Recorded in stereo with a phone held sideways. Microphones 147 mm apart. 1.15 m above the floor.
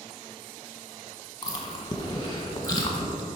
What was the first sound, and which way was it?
Chewing, 25° left (ahead or behind).